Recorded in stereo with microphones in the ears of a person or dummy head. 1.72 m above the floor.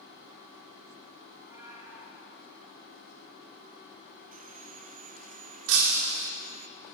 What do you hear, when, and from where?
1.3 s a cat meowing: 20° right (ahead or behind), 4.5 m
4.3 s sawing: 50° right (ahead or behind), 0.8 m
5.7 s breaking glass: 75° right (ahead or behind), 3 m